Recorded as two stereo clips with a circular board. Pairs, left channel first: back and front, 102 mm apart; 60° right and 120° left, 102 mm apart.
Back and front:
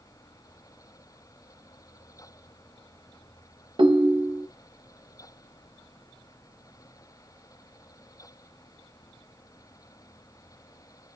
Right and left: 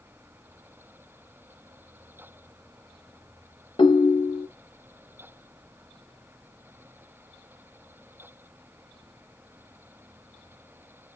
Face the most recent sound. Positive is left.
turn(degrees=-30)